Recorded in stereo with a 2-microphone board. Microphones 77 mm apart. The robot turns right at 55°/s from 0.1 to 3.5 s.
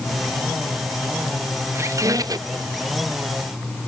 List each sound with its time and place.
1.7 s a squeak: 135° right, 0.6 m; by 2.6 s 85° right, 0.6 m